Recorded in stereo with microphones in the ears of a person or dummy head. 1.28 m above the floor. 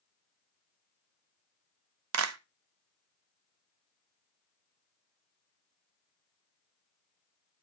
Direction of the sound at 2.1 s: 75° right (ahead or behind).